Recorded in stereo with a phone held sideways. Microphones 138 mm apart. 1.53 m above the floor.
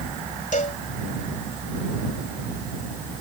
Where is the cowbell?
65° left (ahead or behind).